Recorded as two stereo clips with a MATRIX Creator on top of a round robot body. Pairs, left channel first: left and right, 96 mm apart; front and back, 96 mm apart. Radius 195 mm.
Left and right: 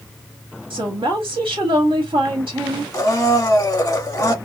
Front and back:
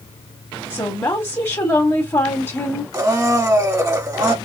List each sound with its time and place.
0.7 s a woman speaking: 60° right, 1.9 m
2.9 s a blender: 135° left, 1.4 m